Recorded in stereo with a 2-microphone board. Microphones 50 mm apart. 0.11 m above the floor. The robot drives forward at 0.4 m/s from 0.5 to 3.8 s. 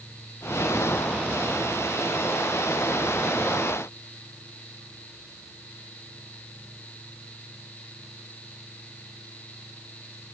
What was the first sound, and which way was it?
Only background noise.